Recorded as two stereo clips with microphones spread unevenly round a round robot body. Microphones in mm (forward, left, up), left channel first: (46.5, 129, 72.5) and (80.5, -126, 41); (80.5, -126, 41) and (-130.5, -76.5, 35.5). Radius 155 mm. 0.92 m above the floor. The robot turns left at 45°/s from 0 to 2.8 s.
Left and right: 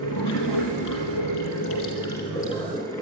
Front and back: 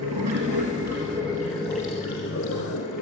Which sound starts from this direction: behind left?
Running water, at 0.0 s.